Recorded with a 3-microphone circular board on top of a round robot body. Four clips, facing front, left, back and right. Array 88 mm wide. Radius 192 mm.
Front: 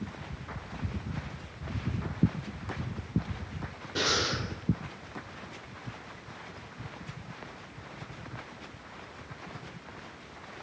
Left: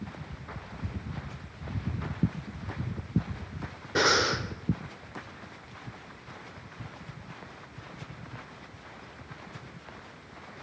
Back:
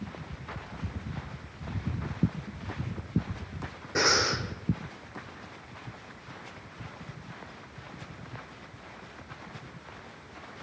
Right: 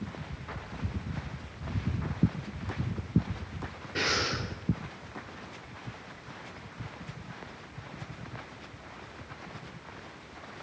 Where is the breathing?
110° left, 1.6 m.